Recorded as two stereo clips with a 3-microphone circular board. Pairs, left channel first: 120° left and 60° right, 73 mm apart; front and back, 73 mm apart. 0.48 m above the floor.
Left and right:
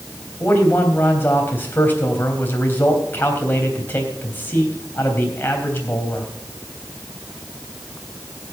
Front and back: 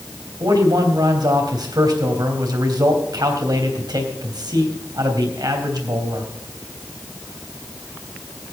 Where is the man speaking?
Straight behind, 3 m.